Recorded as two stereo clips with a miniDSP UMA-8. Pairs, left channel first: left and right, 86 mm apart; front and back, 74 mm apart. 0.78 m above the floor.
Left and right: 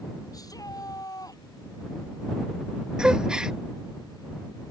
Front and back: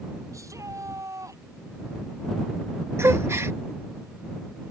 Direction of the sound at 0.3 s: 135° left.